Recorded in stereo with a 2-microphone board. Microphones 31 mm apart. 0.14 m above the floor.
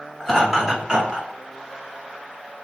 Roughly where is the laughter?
Centre.